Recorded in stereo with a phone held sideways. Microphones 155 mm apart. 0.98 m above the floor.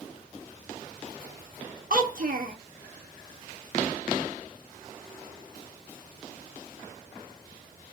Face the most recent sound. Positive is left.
turn(degrees=-60)  # may be behind; listen again after turning